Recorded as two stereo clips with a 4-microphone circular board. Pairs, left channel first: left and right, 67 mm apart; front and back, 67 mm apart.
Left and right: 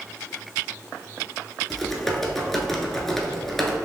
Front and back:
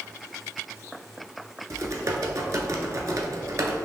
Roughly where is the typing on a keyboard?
Behind.